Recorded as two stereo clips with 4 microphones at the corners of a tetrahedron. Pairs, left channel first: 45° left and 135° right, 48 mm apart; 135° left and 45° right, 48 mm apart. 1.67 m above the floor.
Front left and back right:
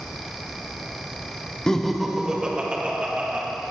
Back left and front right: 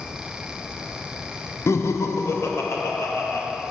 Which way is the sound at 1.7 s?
120° left.